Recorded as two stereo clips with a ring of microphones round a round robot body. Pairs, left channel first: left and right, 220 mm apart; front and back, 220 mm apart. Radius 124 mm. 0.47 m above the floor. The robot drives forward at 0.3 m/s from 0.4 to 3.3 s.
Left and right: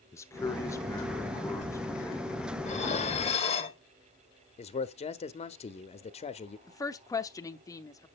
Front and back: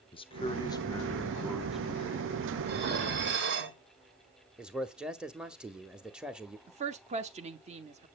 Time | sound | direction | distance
0.1 | a man speaking | 30° left | 1.0 m
2.6 | dishes clattering | 145° left | 1.2 m
4.6 | a man speaking | 100° left | 0.9 m
6.7 | a woman speaking | 155° left | 0.9 m